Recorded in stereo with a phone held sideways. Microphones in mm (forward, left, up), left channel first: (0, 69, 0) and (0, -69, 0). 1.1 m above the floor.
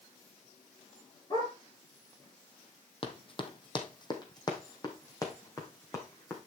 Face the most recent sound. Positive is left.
turn(degrees=20)  # may be behind; listen again after turning